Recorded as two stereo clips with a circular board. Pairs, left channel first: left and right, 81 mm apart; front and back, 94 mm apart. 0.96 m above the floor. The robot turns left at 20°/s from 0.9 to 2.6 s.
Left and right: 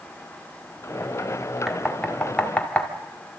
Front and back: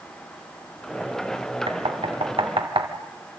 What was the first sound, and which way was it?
Knocking, straight behind.